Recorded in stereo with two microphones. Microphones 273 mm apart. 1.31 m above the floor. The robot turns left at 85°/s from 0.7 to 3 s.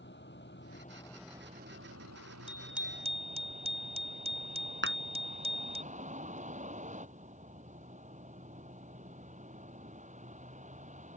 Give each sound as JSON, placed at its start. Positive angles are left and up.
{"t": 0.0, "sound": "a vehicle", "azimuth_deg": 45}
{"t": 2.5, "sound": "a bicycle bell", "azimuth_deg": 20}
{"t": 4.8, "sound": "a clap", "side_deg": -45}